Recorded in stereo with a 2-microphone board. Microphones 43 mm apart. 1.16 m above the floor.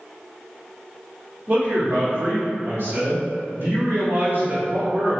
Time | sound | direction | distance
1.5 | a man speaking | 50° right (ahead or behind) | 1.0 m